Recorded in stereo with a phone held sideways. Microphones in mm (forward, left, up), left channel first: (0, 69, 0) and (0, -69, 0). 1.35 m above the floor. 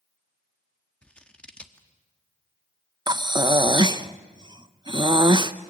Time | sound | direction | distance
1.0 | scissors | 10° left (ahead or behind) | 1.4 m
3.1 | breathing | 30° right (ahead or behind) | 0.7 m